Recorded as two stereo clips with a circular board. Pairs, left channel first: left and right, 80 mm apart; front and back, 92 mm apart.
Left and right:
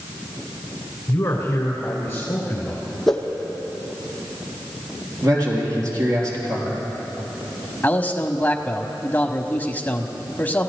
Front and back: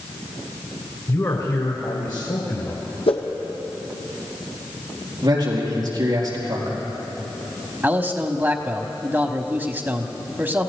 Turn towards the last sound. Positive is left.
turn(degrees=135)